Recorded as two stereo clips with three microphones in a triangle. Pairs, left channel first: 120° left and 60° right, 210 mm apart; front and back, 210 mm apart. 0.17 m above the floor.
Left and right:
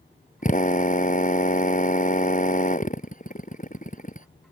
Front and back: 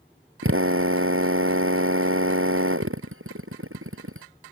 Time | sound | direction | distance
0.4 | a drill | 170° left | ?